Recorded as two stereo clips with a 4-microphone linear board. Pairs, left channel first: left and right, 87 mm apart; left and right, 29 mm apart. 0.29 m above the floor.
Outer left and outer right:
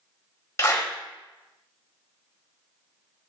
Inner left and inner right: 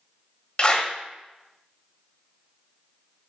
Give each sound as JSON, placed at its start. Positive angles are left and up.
{"t": 0.6, "sound": "a clap", "side_deg": 30, "distance_m": 1.4}